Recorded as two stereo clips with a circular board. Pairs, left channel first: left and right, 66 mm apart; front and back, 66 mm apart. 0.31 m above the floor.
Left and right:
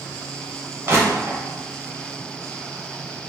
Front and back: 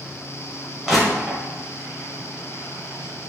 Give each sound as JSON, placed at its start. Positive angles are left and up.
{"t": 0.9, "sound": "crushing", "azimuth_deg": -95, "distance_m": 1.3}